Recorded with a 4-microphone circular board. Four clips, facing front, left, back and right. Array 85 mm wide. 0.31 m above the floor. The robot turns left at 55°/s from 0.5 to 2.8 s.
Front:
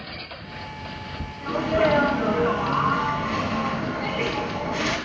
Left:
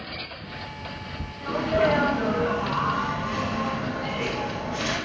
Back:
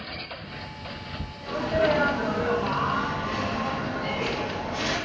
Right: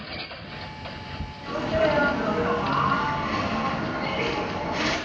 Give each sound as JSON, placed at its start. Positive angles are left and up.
{"t": 1.4, "sound": "a sneeze", "azimuth_deg": 45, "distance_m": 3.0}